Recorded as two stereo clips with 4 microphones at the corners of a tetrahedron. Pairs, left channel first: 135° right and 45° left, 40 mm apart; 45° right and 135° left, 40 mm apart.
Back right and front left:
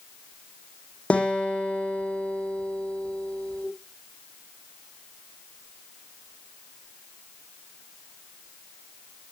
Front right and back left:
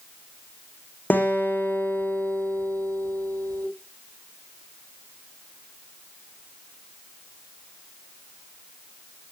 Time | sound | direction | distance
1.1 | a guitar | 80° right | 5 m